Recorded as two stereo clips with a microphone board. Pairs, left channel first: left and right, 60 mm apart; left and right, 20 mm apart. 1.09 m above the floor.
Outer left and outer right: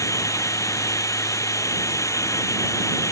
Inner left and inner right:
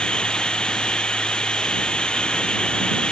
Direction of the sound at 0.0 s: 60° left (ahead or behind).